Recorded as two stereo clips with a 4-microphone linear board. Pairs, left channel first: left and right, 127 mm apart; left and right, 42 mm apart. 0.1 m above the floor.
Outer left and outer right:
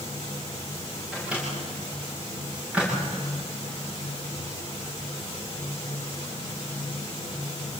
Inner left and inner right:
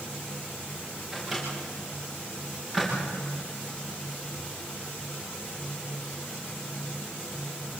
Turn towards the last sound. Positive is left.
turn(degrees=-10)  # may be behind; listen again after turning